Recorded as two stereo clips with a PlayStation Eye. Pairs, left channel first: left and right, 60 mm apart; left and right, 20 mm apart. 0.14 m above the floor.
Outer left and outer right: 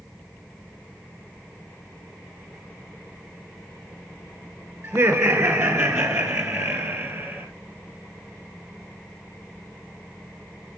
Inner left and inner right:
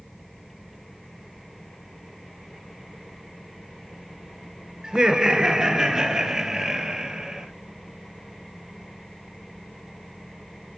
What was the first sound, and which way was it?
Laughter, 55° right (ahead or behind).